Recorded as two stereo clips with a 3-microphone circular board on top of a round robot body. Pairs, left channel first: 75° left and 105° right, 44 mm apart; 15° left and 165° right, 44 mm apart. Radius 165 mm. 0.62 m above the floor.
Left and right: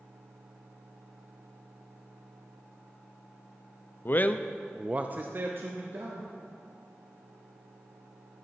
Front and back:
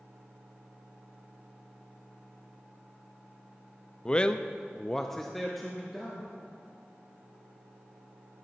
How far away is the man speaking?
About 0.6 m.